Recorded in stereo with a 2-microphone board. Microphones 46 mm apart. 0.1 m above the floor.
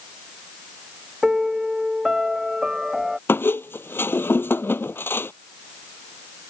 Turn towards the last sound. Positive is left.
turn(degrees=55)  # may be behind; listen again after turning